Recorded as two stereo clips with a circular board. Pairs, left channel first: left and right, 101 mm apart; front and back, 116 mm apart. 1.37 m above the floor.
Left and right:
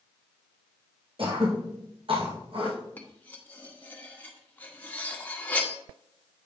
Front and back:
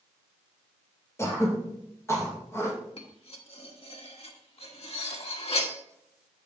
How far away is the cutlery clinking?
About 1.2 m.